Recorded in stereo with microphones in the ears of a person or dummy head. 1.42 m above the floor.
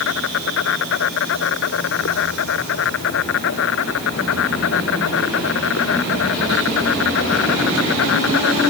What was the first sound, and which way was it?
An insect, 60° left (ahead or behind).